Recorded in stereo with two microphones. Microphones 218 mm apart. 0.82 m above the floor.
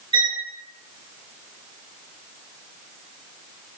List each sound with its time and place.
0.1 s a violin: 25° right (ahead or behind), 0.6 m